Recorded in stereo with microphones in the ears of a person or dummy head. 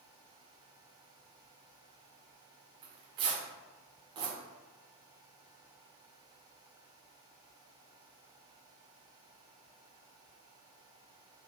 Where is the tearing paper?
25° right (ahead or behind), 0.7 m.